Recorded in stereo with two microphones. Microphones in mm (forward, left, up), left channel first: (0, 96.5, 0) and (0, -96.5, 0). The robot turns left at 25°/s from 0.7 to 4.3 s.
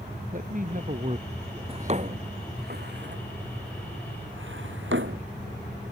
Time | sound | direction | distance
0.3 | a man speaking | 135° right | ?
1.7 | a drawer | 30° right (ahead or behind) | ?